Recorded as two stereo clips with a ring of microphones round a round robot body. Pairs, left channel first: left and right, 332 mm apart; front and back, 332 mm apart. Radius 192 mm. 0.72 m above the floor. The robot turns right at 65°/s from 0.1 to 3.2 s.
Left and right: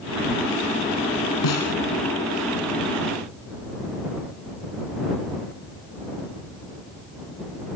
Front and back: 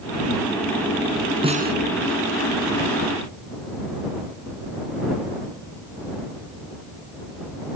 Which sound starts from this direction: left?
A snare drum, at 1.4 s.